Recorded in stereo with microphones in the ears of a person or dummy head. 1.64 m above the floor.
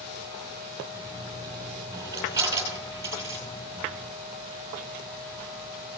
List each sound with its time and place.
0.9 s a dropped coin: 20° right (ahead or behind), 5 m